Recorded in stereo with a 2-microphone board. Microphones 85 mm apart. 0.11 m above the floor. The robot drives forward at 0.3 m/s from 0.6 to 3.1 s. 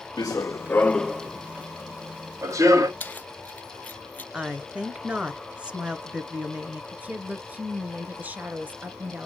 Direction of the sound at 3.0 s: 20° left (ahead or behind).